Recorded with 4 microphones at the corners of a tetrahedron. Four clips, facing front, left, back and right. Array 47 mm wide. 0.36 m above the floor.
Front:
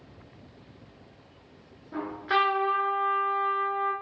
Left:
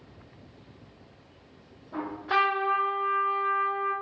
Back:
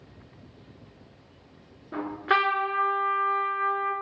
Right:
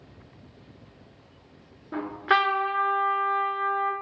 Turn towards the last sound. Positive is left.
turn(degrees=-120)